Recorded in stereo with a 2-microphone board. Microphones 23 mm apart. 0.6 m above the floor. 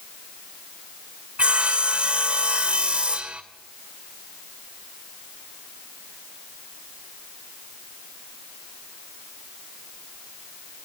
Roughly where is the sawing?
Right.